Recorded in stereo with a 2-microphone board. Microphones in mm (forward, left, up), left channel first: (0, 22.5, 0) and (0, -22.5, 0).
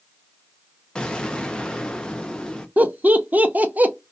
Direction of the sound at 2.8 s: 40° right (ahead or behind).